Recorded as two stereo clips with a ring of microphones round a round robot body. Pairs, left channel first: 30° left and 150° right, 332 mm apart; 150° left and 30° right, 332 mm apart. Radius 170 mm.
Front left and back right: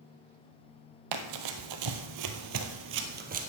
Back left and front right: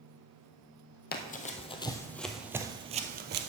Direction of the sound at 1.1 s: 150° right.